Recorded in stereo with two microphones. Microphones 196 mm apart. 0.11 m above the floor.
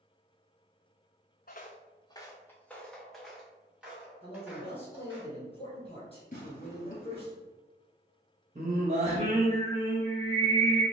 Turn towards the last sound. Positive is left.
turn(degrees=-35)  # may be behind; listen again after turning